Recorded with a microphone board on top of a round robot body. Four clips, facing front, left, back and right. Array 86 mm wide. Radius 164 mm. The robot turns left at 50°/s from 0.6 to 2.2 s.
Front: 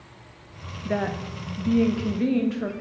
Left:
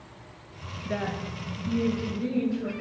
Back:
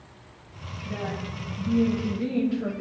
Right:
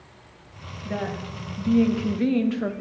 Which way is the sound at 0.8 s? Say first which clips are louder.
Right 1 dB, front 6 dB; 5° left.